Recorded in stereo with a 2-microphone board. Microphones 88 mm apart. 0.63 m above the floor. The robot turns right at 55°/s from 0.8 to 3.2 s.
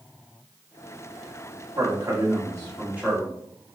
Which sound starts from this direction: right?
A man speaking, at 1.8 s.